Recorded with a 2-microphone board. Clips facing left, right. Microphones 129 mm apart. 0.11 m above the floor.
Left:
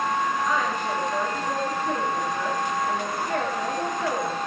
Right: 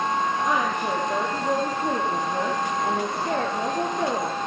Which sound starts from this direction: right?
A woman speaking, at 0.4 s.